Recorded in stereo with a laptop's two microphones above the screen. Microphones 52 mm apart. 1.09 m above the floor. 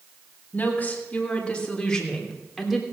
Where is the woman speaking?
30° left (ahead or behind), 3.5 m; by 2.8 s centre (ahead or behind), 3.5 m.